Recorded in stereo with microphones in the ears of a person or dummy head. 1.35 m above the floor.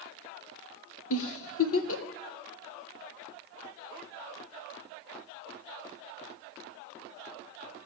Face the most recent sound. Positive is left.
turn(degrees=75)  # may be behind; listen again after turning